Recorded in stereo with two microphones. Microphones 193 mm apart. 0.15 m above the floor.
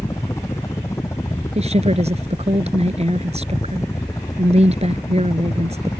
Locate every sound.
0.0 s a helicopter: 15° left (ahead or behind)
1.6 s a woman speaking: 35° right (ahead or behind)